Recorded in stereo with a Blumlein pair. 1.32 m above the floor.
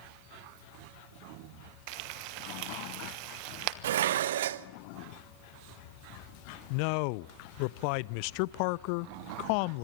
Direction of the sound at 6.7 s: 45° left.